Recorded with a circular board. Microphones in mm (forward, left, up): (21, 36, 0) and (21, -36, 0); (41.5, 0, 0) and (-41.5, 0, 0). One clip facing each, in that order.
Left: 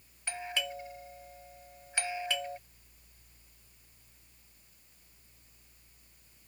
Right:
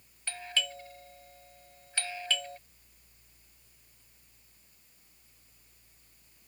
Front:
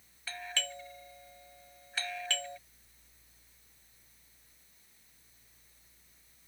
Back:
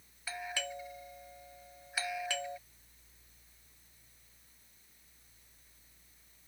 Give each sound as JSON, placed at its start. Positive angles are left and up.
{"t": 0.3, "sound": "a doorbell", "azimuth_deg": 120}